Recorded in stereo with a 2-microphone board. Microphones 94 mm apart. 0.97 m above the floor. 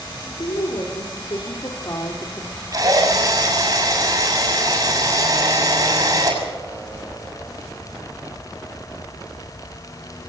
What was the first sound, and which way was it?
A woman speaking, 65° left (ahead or behind).